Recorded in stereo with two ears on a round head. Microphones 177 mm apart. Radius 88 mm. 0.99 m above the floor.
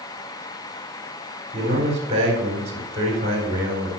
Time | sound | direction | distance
1.5 | a man speaking | 30° right (ahead or behind) | 3.5 m